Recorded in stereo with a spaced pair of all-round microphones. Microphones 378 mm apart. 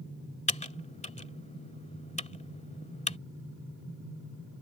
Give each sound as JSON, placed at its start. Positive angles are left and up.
{"t": 0.5, "sound": "typing on a keyboard", "side_deg": 20}